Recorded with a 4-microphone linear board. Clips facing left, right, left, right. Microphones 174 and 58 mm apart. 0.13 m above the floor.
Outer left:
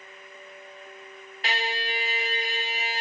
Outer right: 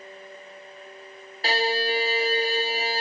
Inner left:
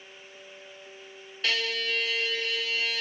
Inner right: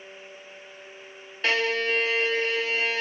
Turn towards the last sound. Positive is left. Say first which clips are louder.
# outer right 7 dB, inner right 5 dB
turn(degrees=-35)  # may be behind; listen again after turning